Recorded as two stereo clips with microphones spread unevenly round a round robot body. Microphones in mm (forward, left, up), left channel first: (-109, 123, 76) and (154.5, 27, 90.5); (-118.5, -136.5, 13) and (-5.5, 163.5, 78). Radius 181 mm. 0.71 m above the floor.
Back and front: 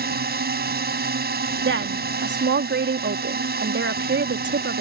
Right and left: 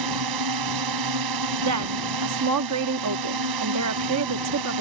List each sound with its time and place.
0.0 s a drone: 35° left
1.6 s a woman speaking: 25° left